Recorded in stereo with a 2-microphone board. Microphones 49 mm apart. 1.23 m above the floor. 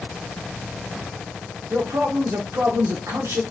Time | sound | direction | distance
1.7 | a man speaking | 85° right | 1.0 m